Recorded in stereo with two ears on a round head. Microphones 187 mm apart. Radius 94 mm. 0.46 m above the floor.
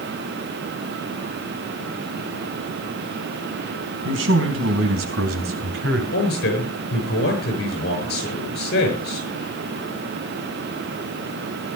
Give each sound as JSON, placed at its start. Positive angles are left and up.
{"t": 4.0, "sound": "a man speaking", "side_deg": -65, "distance_m": 4.0}
{"t": 6.1, "sound": "a man speaking", "side_deg": 55, "distance_m": 7.0}